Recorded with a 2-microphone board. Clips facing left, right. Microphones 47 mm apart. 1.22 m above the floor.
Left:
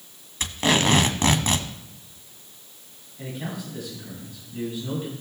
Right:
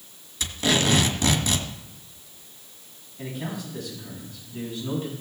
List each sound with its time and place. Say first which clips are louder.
0.4 s tape being pulled: left 2 dB; 45° left (ahead or behind), 1.4 m
3.2 s a man speaking: even; 5° left (ahead or behind), 7 m